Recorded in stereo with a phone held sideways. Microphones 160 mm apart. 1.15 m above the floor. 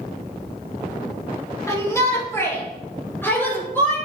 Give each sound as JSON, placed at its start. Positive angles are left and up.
{"t": 1.7, "sound": "a shout", "side_deg": 20, "distance_m": 2.5}